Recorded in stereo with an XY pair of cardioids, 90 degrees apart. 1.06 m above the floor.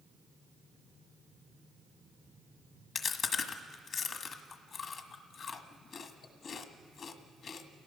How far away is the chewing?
About 1.4 m.